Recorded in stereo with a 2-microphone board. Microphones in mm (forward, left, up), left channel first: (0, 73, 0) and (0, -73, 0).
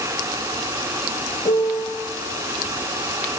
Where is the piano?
45° left (ahead or behind), 0.6 m.